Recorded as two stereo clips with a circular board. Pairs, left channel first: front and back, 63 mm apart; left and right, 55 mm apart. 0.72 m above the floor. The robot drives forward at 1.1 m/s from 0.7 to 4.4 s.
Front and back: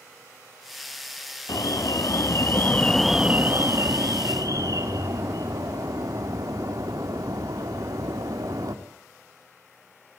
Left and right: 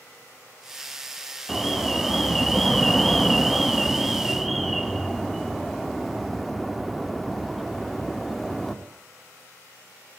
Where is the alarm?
Straight ahead, 1.9 m; by 8.8 s straight behind, 1.6 m.